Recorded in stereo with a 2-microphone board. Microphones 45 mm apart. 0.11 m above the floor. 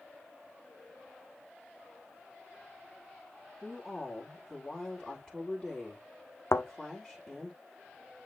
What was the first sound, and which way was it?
A woman speaking, 5° left (ahead or behind).